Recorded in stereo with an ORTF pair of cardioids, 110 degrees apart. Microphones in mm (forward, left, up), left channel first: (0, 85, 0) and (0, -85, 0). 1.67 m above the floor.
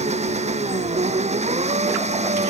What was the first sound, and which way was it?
An engine running, 40° right.